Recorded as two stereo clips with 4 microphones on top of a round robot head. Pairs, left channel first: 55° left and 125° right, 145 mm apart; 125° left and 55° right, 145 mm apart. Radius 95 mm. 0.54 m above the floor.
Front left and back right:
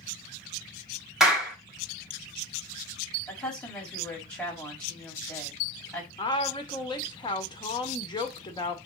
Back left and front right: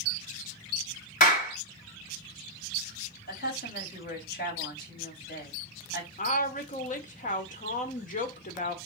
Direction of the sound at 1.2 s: 150° left.